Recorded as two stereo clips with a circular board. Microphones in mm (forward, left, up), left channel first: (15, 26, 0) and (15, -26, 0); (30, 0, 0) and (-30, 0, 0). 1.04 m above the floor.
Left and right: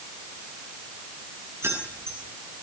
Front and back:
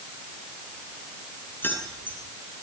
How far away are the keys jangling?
About 10 m.